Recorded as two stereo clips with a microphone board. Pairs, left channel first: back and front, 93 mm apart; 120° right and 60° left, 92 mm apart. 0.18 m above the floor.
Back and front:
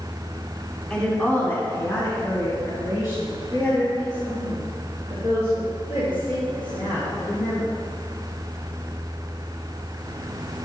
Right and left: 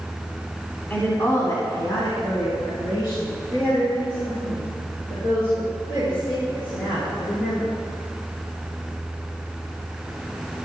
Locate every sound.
0.9 s a woman speaking: 115° right, 1.6 m; by 7.8 s 150° right, 7.5 m